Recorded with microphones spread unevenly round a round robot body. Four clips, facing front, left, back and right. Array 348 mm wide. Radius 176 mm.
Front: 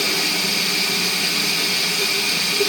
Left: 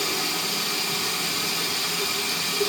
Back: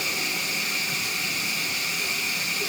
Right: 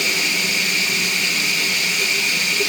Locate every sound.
0.0 s running water: 35° right, 2.0 m